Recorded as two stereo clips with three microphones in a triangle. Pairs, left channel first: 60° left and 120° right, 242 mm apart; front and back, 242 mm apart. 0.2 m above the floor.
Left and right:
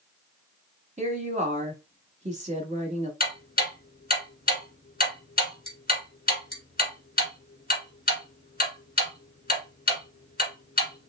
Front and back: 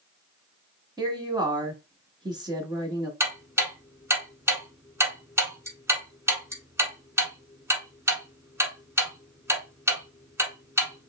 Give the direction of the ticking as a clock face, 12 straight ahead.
9 o'clock.